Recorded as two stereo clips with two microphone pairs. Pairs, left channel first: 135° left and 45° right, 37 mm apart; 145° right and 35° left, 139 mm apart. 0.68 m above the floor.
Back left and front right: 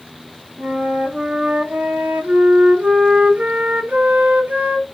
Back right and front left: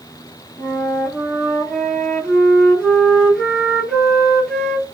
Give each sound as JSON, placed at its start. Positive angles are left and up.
{"t": 0.6, "sound": "a flute", "azimuth_deg": -60, "distance_m": 1.0}